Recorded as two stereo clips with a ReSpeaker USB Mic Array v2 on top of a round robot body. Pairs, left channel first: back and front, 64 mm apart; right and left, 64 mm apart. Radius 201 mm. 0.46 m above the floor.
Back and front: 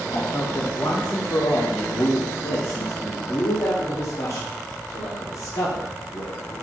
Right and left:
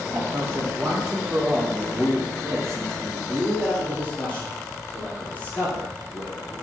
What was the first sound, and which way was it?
A man speaking, 140° left.